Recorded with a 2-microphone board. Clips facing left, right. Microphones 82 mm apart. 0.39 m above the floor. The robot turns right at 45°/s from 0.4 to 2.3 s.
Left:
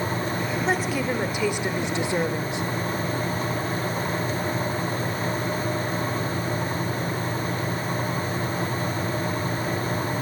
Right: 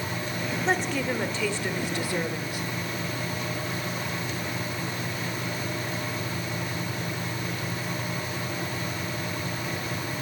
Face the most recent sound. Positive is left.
turn(degrees=25)  # may be behind; listen again after turning